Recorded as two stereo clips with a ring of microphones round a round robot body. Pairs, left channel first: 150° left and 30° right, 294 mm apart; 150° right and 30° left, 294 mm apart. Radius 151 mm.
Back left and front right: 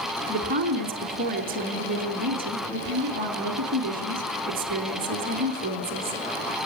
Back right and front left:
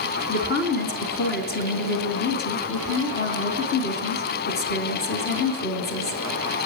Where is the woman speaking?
90° right, 4 m.